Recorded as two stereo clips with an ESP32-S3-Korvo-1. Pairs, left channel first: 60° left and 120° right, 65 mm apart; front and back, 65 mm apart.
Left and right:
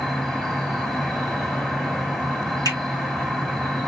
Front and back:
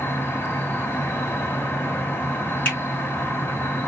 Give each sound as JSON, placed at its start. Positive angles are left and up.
{"t": 0.0, "sound": "an insect", "azimuth_deg": -20, "distance_m": 1.7}
{"t": 2.6, "sound": "a finger snap", "azimuth_deg": 60, "distance_m": 4.5}